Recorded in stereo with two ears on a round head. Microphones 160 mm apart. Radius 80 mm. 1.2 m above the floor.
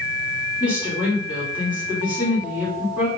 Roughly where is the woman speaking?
Centre.